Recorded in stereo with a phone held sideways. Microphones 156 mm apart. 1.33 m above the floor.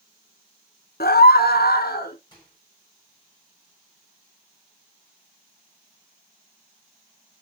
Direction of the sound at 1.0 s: 80° left.